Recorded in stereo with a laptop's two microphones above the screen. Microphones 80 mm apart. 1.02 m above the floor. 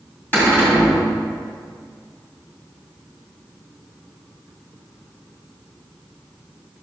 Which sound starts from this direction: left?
A cupboard door, at 0.3 s.